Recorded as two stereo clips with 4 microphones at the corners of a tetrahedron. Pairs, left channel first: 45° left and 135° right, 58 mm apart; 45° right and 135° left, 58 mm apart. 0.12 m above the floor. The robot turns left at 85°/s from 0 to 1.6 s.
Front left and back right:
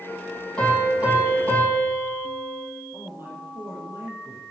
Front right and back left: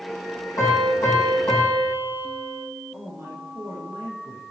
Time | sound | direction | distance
0.6 | a piano | 30° right | 4.5 m
2.9 | a man speaking | straight behind | 3.5 m